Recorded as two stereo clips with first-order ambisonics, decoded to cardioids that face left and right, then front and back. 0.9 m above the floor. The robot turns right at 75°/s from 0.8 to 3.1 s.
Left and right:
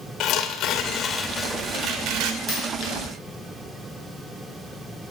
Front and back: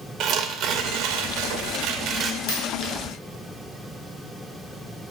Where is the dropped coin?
15° left, 3 m; by 2.9 s 45° left, 3 m.